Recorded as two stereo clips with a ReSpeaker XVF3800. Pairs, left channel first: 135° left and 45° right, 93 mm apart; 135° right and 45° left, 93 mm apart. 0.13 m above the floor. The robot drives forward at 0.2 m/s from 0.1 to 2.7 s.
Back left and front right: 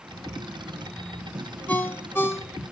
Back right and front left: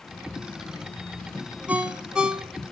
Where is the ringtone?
95° left, 0.8 m; by 2.6 s 120° left, 0.9 m.